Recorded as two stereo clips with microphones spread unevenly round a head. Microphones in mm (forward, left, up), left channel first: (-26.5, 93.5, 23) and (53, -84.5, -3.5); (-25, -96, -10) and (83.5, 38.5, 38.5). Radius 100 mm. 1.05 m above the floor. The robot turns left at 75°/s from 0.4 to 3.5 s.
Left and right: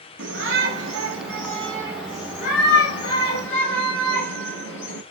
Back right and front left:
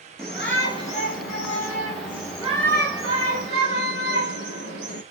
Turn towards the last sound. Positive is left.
turn(degrees=85)